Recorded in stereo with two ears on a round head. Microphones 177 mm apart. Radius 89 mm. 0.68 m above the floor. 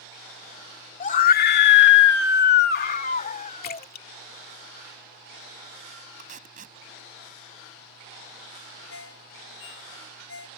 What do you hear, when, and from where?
1.0 s a scream: 35° left (ahead or behind); by 3.9 s 30° left (ahead or behind)
3.6 s a splash: 45° left (ahead or behind)
6.2 s tape being pulled: 40° right (ahead or behind)
8.9 s a ringtone: 65° left (ahead or behind)